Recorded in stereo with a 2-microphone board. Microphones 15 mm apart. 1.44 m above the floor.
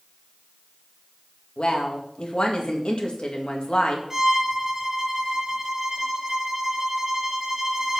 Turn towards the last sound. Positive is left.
turn(degrees=-30)  # may be behind; listen again after turning